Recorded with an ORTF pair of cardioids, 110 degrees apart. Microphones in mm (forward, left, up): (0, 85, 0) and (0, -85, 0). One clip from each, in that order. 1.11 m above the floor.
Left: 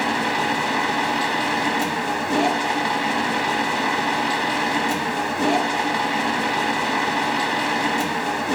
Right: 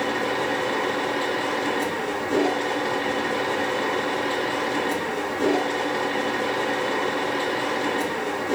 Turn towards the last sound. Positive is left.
turn(degrees=55)